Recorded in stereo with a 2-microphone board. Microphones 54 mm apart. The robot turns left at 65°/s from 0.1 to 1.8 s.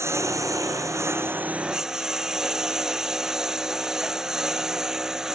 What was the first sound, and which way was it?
A lawn mower, 60° right.